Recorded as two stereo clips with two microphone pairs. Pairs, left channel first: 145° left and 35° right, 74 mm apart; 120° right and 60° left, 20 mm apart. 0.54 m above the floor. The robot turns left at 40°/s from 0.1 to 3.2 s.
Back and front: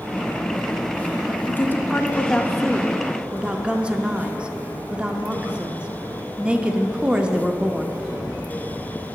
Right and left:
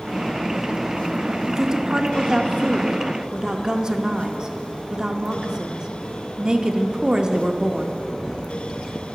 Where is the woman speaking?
105° left, 0.8 m; by 8.0 s 35° left, 0.8 m.